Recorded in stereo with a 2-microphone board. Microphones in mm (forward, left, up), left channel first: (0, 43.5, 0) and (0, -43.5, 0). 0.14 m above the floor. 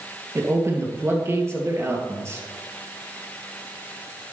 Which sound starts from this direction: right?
A man speaking, at 0.3 s.